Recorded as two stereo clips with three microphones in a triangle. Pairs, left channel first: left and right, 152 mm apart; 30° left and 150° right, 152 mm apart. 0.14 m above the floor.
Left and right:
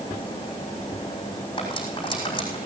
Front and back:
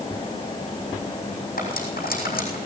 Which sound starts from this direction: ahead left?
Cutlery clinking, at 1.6 s.